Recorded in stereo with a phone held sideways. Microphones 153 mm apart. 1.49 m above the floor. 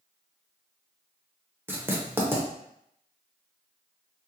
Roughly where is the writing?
Centre.